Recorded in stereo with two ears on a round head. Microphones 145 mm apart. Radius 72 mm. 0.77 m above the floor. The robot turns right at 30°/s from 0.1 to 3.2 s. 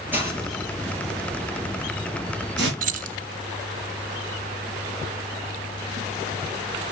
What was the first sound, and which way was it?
A hiss, 10° right (ahead or behind).